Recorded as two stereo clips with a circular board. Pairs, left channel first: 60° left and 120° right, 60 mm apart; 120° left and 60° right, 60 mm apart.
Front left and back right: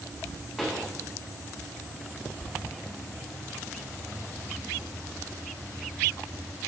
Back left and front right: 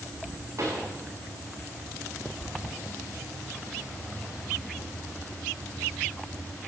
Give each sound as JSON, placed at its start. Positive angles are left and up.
{"t": 0.6, "sound": "a pop", "azimuth_deg": -30, "distance_m": 5.0}